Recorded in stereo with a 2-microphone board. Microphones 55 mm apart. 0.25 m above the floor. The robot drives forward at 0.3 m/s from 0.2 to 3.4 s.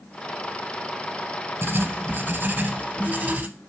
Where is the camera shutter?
No camera shutter in this recording.